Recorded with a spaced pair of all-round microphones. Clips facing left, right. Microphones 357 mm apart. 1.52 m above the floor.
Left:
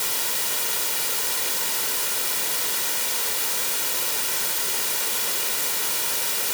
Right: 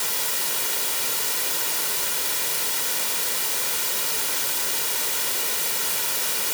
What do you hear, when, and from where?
Only background noise.